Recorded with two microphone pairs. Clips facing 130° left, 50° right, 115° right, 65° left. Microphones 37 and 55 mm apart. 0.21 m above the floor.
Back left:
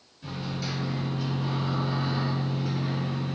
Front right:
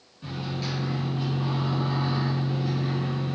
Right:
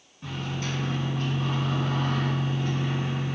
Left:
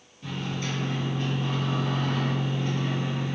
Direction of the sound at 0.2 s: 95° right.